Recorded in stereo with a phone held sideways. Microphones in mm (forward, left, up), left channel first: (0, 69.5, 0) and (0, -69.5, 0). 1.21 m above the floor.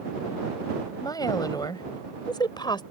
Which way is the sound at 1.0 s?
25° left (ahead or behind).